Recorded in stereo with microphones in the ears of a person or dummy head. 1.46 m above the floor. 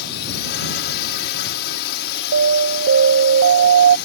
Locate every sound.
0.0 s a drone: 60° left (ahead or behind)
2.3 s an alarm: 65° right (ahead or behind)